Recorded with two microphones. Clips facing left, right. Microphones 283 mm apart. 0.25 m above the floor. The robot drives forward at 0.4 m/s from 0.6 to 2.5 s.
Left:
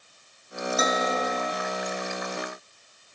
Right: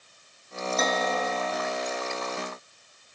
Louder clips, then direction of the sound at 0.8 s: Left 1 dB; 5° left (ahead or behind).